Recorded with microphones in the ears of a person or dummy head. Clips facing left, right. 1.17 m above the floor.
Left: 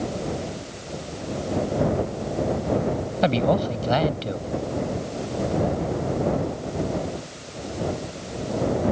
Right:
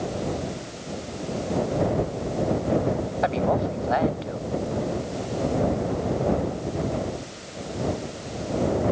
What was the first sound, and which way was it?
A man speaking, 45° left (ahead or behind).